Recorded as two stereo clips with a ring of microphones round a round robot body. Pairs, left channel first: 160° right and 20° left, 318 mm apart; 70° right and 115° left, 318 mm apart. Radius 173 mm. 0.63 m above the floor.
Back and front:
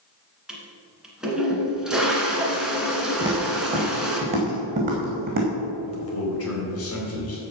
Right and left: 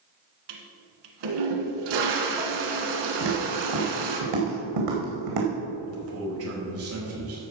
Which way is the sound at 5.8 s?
155° left.